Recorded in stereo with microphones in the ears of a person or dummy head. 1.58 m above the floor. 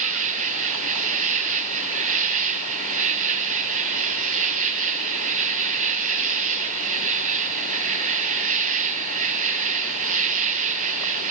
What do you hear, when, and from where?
0.0 s an insect: 45° right (ahead or behind), 0.7 m